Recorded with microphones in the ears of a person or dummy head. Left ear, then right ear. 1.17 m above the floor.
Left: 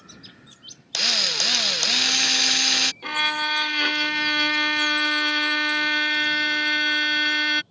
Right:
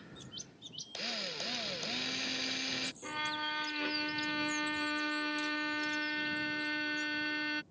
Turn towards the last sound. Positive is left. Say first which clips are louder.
# left 13 dB
turn(degrees=40)  # may be behind; listen again after turning